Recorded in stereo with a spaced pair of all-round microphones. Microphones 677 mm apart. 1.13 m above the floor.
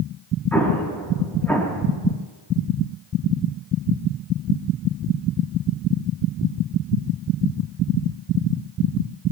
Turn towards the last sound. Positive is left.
turn(degrees=5)  # may be behind; listen again after turning